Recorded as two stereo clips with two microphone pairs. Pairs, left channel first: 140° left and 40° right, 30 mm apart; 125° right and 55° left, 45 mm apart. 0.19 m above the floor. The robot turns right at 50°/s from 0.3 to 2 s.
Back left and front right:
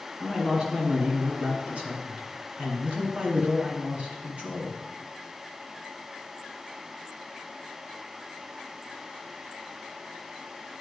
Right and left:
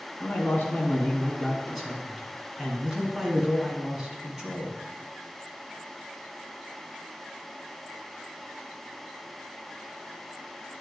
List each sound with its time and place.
0.2 s a man speaking: 105° right, 1.6 m; by 4.8 s 20° right, 1.6 m